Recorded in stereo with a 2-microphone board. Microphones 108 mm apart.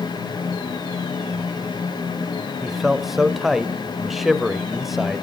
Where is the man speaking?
Centre (ahead or behind), 0.9 m.